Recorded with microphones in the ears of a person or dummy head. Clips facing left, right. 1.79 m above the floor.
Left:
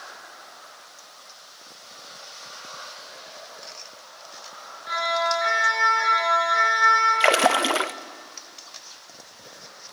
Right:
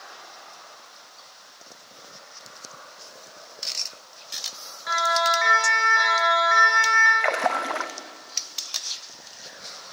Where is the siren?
80° right, 7.5 m; by 7.1 s 75° right (ahead or behind), 7.5 m.